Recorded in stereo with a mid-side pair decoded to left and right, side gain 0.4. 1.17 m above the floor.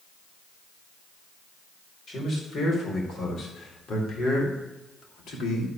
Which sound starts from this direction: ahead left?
A man speaking, at 2.1 s.